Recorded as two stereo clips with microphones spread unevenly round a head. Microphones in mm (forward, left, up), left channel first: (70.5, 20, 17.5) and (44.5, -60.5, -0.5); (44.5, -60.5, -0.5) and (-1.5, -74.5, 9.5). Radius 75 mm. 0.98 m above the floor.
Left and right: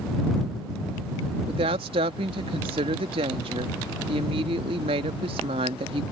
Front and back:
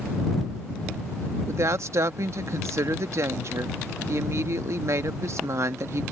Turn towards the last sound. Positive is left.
turn(degrees=-135)